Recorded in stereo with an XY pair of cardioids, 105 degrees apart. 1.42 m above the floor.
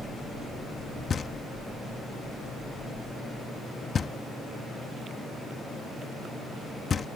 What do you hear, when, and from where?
1.1 s knocking: 40° left